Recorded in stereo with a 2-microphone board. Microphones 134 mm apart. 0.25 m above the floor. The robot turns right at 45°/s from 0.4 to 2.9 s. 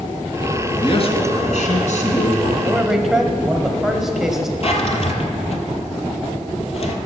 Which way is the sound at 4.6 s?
50° left (ahead or behind).